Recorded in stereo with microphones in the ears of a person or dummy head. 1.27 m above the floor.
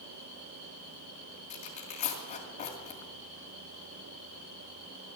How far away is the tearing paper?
About 2 m.